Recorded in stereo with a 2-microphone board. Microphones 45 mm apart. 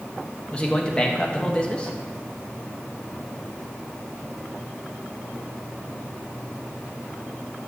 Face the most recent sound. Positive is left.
turn(degrees=20)  # may be behind; listen again after turning